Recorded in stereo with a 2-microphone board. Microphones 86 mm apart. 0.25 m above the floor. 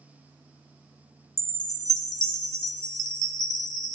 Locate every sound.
1.4 s a chime: 50° left (ahead or behind), 0.8 m